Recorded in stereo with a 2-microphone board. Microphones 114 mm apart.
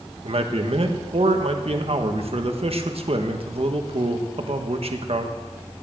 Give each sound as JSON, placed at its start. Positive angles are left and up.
{"t": 0.2, "sound": "a man speaking", "side_deg": -60, "distance_m": 1.5}